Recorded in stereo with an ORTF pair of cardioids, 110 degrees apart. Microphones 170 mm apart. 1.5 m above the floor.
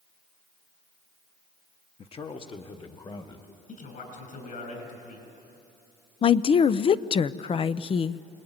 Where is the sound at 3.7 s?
55° left, 7.5 m.